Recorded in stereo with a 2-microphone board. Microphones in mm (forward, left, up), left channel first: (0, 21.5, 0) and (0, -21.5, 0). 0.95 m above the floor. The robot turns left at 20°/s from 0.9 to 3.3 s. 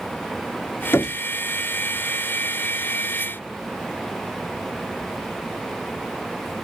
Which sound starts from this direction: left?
Knocking, at 0.9 s.